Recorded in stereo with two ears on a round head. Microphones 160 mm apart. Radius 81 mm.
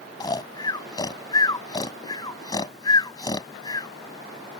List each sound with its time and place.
0.2 s snoring: 25° left (ahead or behind)